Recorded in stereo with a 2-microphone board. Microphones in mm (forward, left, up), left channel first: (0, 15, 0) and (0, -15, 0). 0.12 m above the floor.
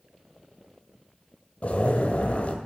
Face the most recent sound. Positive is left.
turn(degrees=45)  # may be behind; listen again after turning